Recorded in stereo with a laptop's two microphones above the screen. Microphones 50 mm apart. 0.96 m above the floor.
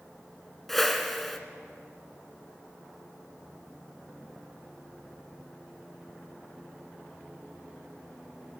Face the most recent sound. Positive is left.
turn(degrees=5)  # may be behind; listen again after turning